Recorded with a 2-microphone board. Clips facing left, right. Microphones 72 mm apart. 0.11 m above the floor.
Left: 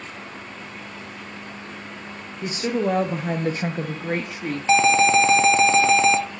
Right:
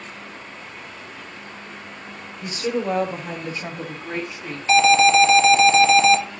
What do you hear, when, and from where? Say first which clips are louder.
2.4 s a woman speaking: left 1 dB; 25° left (ahead or behind), 1.8 m; by 4.6 s 60° left (ahead or behind), 2 m
4.7 s an alarm: right 2 dB; 25° left (ahead or behind), 0.8 m